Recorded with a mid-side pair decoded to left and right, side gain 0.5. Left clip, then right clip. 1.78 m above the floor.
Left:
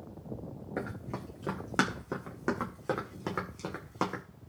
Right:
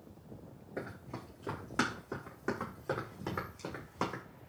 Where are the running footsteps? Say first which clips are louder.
Left 4 dB; 55° left, 6.5 m; by 4.2 s 35° left, 5.5 m.